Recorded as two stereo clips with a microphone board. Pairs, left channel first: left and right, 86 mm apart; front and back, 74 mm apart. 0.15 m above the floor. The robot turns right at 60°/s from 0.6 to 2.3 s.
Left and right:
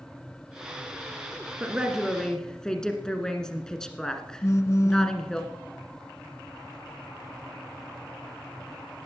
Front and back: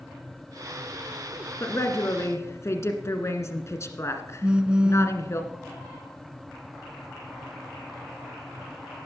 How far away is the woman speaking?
About 1.6 m.